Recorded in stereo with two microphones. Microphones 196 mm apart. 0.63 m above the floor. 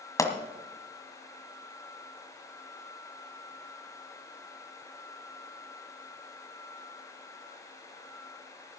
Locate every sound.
0.2 s a pop: 15° left (ahead or behind), 1.4 m